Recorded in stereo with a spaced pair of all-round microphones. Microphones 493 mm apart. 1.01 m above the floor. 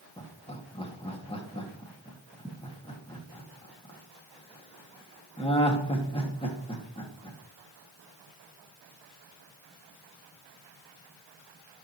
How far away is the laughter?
About 1.8 m.